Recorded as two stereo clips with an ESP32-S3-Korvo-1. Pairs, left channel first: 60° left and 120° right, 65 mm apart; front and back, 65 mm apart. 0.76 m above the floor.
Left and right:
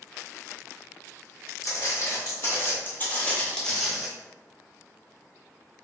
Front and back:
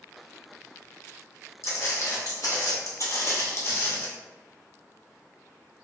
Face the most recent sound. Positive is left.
turn(degrees=-40)